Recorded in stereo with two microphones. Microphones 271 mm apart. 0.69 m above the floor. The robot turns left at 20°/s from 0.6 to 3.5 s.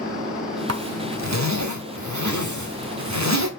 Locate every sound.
0.7 s a zipper: 55° right (ahead or behind), 1.3 m; by 3.5 s 65° right (ahead or behind), 1.3 m